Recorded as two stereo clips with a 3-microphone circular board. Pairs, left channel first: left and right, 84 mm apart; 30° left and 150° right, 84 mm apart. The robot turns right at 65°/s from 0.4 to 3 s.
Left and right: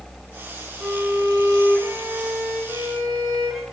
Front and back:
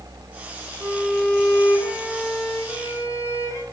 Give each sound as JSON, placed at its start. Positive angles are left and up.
{"t": 0.8, "sound": "a violin", "azimuth_deg": -140, "distance_m": 1.1}